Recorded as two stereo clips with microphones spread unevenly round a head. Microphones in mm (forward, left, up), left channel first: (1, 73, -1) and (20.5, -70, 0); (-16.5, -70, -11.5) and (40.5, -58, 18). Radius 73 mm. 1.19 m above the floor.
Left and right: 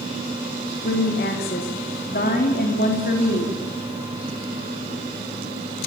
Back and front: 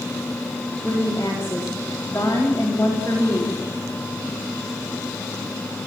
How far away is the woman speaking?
About 3 m.